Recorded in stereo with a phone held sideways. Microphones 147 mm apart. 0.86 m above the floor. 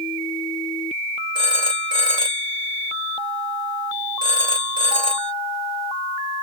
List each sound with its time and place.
1.4 s a phone ringing: 40° right (ahead or behind), 2.5 m